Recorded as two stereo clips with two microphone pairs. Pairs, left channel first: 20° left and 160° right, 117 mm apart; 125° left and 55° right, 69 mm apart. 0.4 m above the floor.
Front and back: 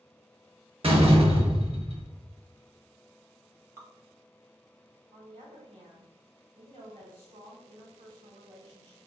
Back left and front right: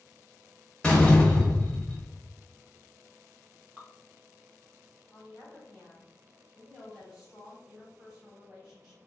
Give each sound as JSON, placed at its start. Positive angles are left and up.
{"t": 0.8, "sound": "a door slam", "azimuth_deg": -165, "distance_m": 0.7}
{"t": 3.8, "sound": "dripping", "azimuth_deg": -105, "distance_m": 0.8}
{"t": 5.1, "sound": "a woman speaking", "azimuth_deg": -130, "distance_m": 1.9}